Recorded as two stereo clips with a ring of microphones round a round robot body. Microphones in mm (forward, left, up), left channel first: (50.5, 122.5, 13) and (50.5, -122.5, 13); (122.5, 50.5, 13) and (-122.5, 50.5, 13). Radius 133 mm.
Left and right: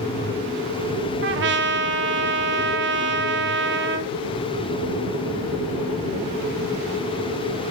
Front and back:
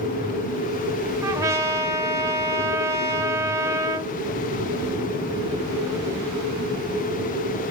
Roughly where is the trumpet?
Right.